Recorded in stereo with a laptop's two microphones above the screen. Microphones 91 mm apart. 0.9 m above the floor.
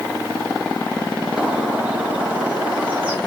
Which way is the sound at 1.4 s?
15° right (ahead or behind).